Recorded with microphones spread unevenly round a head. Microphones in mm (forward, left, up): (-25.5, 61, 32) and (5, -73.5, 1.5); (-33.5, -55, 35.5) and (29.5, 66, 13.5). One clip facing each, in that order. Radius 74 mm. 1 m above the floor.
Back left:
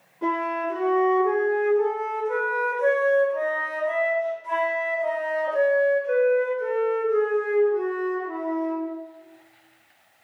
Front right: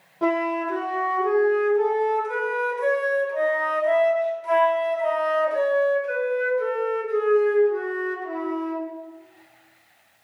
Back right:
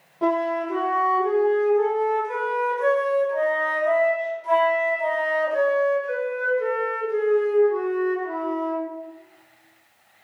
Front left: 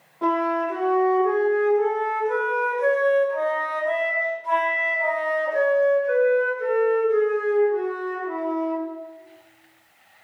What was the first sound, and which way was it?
A flute, 80° right.